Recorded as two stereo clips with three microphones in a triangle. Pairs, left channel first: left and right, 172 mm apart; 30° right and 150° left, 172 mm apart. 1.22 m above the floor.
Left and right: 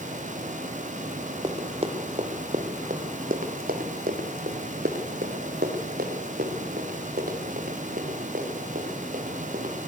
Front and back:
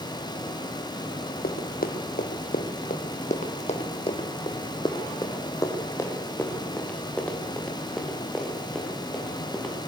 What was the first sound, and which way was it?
Running footsteps, 35° right.